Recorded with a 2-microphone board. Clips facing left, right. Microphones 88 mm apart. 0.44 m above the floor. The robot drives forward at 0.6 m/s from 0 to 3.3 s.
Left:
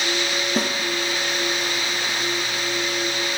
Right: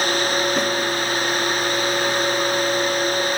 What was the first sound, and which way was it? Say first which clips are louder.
A snare drum: right 2 dB; 35° left (ahead or behind).